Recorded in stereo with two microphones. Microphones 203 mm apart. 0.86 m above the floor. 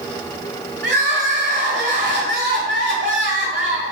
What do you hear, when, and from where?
0.8 s crying: 65° right (ahead or behind), 1.2 m